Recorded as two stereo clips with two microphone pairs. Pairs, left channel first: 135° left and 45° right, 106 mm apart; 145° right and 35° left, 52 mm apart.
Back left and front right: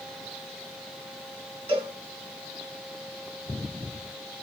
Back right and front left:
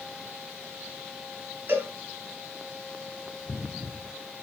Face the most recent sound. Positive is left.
turn(degrees=-15)